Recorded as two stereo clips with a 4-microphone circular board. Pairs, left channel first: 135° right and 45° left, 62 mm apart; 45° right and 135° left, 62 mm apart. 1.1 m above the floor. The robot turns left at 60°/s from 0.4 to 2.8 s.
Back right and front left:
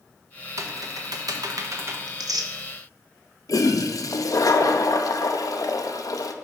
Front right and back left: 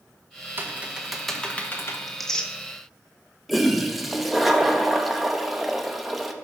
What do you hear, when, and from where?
0.6 s typing on a keyboard: 80° left, 0.8 m; by 2.0 s straight ahead, 0.8 m
2.1 s tearing paper: 50° left, 0.7 m; by 2.5 s 25° left, 0.7 m
3.5 s a toilet flushing: 135° right, 0.6 m